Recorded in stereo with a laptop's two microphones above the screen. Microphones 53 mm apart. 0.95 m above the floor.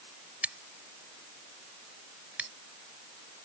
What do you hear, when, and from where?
0.4 s scissors: 25° right (ahead or behind)